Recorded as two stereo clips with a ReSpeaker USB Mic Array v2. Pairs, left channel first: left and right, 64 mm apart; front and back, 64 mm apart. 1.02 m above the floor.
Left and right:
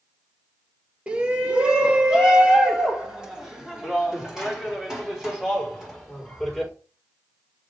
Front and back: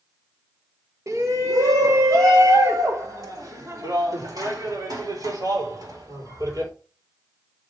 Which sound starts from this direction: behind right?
A shout, at 1.1 s.